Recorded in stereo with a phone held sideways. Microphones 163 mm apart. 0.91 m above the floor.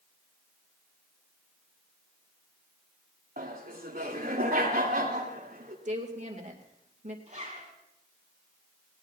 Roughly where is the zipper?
Right.